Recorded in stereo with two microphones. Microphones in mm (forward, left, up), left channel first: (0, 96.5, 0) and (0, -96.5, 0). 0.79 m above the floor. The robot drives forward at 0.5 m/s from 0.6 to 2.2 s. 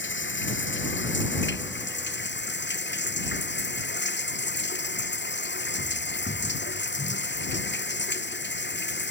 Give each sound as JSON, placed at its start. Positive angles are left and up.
{"t": 0.0, "sound": "running water", "side_deg": 75}